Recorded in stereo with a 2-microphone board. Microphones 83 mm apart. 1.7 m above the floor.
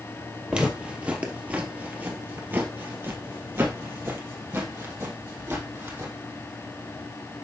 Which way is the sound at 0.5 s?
10° right (ahead or behind).